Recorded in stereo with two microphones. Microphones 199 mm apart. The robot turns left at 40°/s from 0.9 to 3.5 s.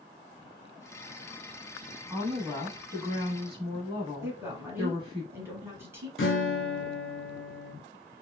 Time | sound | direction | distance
2.1 | a woman speaking | 5° right (ahead or behind) | 1.0 m
4.2 | a woman speaking | 10° right (ahead or behind) | 1.3 m
6.2 | a guitar | 75° left (ahead or behind) | 0.6 m